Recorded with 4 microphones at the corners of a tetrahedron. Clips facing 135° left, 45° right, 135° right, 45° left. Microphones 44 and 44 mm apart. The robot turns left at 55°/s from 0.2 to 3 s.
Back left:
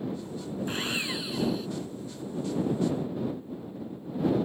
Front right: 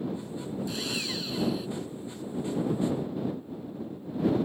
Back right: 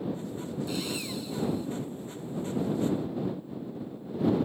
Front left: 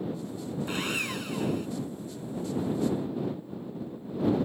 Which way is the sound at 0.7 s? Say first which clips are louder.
Back left 5 dB, front left 3 dB; 90° left.